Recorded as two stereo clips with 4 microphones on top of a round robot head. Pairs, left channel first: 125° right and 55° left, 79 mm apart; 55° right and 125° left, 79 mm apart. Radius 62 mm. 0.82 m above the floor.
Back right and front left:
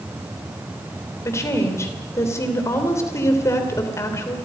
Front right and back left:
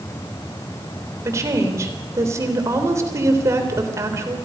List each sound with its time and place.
1.2 s a woman speaking: straight behind, 3.5 m